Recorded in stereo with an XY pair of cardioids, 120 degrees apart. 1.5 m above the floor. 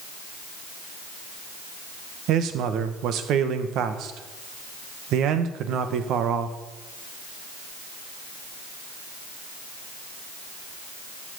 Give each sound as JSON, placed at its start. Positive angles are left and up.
{"t": 2.3, "sound": "a man speaking", "azimuth_deg": -70, "distance_m": 1.5}